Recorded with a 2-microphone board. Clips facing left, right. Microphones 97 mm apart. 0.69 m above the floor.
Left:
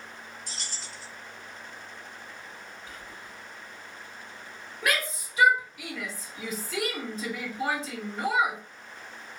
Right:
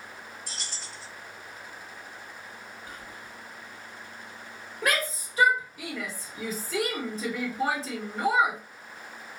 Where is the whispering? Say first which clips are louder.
Right 1 dB; 55° right (ahead or behind), 1.4 m.